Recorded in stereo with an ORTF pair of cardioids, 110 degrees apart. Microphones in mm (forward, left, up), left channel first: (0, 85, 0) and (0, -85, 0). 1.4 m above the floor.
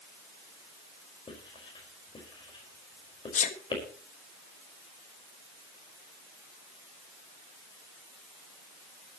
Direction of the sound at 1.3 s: 30° left.